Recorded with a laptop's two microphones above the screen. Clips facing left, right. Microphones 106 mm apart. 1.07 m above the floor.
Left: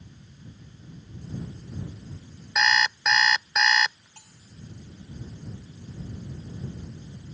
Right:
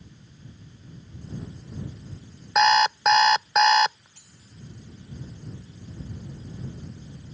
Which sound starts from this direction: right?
An alarm clock, at 2.5 s.